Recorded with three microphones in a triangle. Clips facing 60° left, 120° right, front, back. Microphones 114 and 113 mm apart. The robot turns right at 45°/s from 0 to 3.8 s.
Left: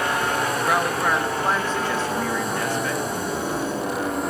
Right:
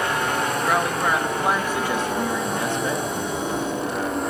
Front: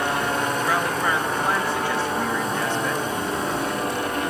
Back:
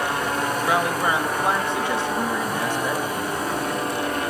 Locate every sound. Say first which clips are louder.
0.7 s a woman speaking: even, back 1 dB; 140° left, 0.8 m; by 3.1 s 115° right, 0.8 m